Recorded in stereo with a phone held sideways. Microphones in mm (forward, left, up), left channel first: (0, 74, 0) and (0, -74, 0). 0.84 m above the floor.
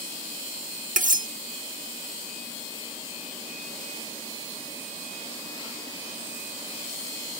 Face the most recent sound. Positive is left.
turn(degrees=-65)  # may be behind; listen again after turning